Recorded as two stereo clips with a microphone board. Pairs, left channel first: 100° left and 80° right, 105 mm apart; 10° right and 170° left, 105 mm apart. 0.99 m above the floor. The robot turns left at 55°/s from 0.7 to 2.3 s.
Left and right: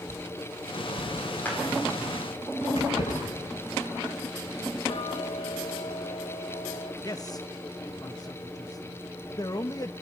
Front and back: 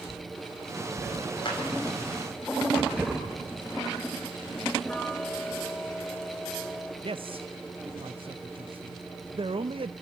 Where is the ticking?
70° left, 1.1 m.